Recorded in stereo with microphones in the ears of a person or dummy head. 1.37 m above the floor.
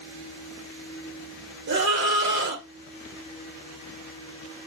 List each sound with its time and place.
1.7 s a scream: 60° right (ahead or behind), 1.1 m